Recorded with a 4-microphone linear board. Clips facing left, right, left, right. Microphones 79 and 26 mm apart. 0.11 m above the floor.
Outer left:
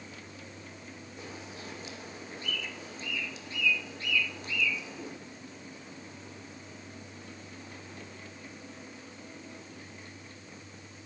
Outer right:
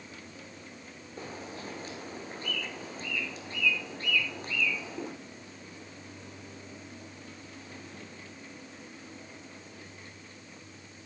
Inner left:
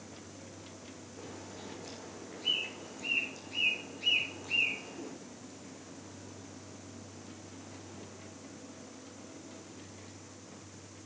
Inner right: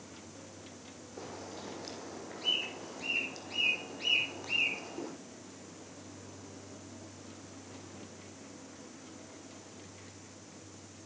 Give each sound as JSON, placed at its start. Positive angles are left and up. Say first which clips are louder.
{"t": 1.2, "sound": "a bird", "louder": "outer right 5 dB, inner right 3 dB", "side_deg": -40, "distance_m": 3.0}